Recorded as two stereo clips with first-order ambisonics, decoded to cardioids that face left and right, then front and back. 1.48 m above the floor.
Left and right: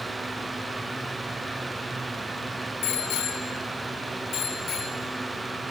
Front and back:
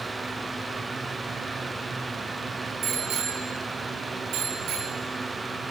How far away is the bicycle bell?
About 2.5 m.